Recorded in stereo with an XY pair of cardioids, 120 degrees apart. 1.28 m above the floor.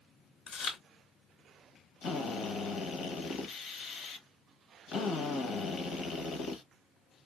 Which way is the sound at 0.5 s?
60° left.